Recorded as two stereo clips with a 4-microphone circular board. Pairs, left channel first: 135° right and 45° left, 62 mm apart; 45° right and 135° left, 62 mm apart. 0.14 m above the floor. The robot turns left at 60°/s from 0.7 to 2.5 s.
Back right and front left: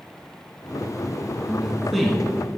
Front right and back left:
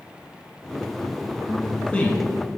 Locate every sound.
1.5 s a man speaking: 15° right, 1.1 m; by 2.2 s 60° right, 1.1 m